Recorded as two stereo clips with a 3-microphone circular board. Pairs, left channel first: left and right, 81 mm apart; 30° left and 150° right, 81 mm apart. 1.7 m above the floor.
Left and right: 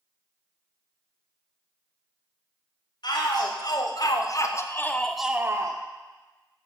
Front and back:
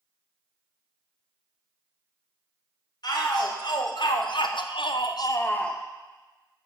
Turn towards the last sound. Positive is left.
turn(degrees=-50)